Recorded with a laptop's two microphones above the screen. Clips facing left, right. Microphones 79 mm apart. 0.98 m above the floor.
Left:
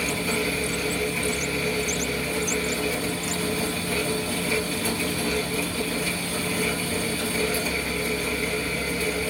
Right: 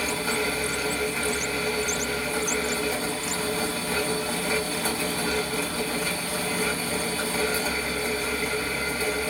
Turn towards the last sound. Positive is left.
turn(degrees=-65)  # may be behind; listen again after turning